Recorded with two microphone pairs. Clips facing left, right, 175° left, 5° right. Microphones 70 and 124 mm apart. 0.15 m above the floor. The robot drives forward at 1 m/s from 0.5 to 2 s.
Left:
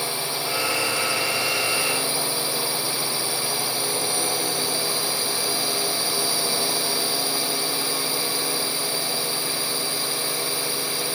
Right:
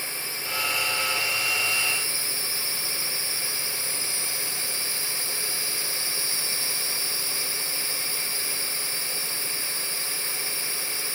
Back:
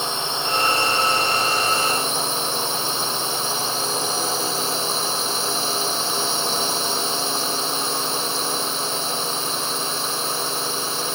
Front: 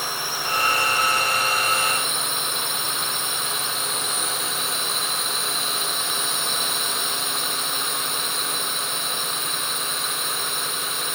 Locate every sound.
0.0 s a drone: 110° left; by 11.2 s 115° left